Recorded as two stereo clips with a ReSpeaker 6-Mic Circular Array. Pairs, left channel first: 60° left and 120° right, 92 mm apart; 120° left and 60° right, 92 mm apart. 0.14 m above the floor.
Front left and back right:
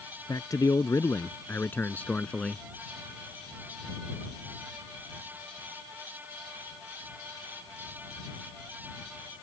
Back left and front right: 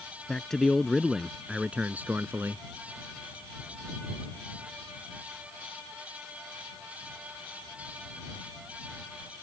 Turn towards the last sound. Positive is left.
turn(degrees=-20)